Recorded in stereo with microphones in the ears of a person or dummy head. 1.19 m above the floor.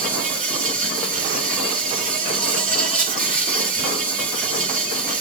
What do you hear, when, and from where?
0.0 s an insect: 40° right (ahead or behind), 3.5 m